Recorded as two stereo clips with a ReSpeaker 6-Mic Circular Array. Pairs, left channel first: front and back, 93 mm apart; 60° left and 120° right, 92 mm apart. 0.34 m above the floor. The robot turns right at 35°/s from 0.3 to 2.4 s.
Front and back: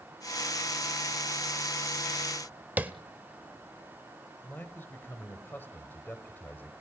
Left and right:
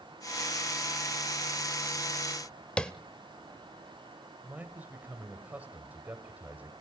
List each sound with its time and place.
2.8 s tapping: 130° left, 0.9 m
4.4 s a man speaking: 55° right, 1.4 m